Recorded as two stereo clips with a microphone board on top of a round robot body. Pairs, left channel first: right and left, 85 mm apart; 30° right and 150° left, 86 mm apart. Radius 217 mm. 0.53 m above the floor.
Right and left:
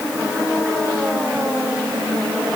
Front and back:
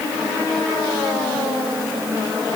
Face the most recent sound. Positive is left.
No sound to turn to.